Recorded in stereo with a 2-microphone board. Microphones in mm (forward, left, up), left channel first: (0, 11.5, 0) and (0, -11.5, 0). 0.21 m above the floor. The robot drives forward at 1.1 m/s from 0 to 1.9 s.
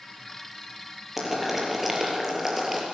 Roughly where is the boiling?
Centre.